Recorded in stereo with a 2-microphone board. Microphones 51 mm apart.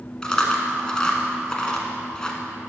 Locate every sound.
0.2 s chewing: 15° left (ahead or behind), 1.2 m